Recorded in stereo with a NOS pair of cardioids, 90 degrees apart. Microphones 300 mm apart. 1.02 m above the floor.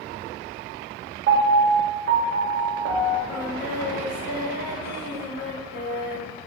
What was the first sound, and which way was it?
A piano, 45° right.